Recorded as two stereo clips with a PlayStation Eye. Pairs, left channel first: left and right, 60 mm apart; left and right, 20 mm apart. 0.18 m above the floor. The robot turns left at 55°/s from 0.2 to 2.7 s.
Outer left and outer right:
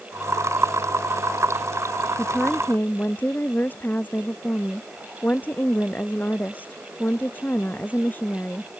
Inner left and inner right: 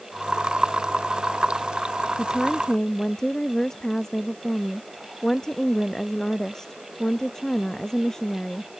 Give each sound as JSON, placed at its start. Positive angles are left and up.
{"t": 2.2, "sound": "a woman speaking", "side_deg": 0}